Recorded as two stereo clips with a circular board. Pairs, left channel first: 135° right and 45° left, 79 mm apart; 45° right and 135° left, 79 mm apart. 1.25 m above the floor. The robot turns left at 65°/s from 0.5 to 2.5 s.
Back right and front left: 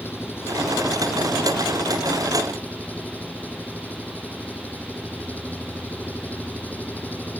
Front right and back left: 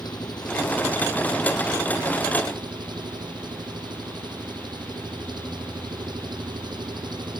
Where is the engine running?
75° right; by 7.4 s 155° left.